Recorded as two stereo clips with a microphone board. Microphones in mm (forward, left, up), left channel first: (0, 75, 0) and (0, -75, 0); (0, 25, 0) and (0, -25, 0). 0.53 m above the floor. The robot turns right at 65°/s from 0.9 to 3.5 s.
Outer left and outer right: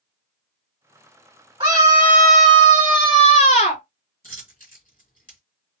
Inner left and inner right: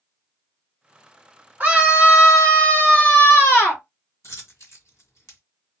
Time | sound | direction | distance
1.6 | a scream | 45° right | 2 m
4.2 | a dropped coin | 75° left (ahead or behind) | 1.7 m